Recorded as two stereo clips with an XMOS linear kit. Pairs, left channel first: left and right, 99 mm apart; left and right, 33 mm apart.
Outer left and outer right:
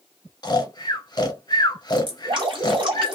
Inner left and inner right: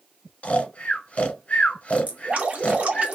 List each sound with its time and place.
0.4 s snoring: 45° left (ahead or behind), 0.8 m
2.1 s dripping: 50° right (ahead or behind), 1.4 m